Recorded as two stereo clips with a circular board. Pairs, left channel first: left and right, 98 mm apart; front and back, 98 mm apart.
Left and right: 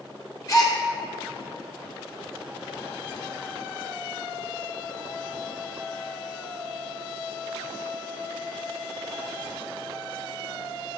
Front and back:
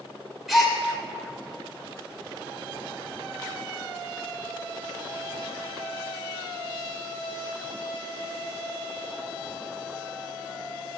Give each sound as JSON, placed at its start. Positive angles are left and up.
{"t": 0.5, "sound": "a gasp", "azimuth_deg": 90, "distance_m": 0.9}